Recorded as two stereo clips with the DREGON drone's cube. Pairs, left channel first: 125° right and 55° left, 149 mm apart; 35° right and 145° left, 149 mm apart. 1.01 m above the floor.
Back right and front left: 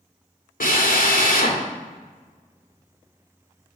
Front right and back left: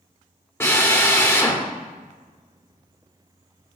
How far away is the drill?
About 2 m.